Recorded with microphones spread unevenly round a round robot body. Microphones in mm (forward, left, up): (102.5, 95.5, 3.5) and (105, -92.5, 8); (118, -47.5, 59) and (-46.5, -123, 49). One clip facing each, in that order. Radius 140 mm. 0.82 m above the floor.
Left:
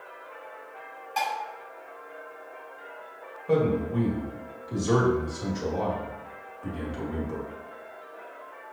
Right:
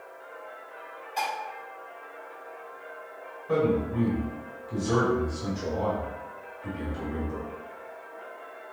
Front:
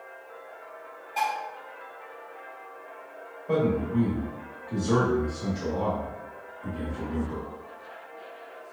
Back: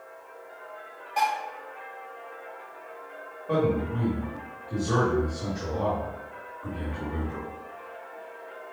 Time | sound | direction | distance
1.2 | dishes clattering | 115° left | 1.8 m
3.5 | a man speaking | 105° left | 1.9 m